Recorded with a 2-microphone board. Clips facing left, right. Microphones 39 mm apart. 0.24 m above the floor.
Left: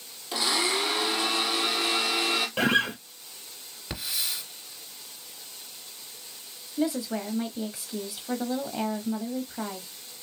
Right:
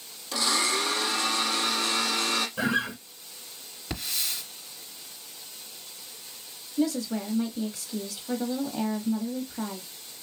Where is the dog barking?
No dog barking in this recording.